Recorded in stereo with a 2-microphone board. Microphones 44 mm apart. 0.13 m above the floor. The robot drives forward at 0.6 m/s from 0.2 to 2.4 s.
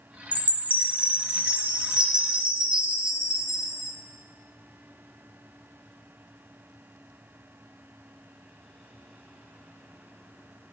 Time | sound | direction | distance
0.3 | a chime | 35° right (ahead or behind) | 0.7 m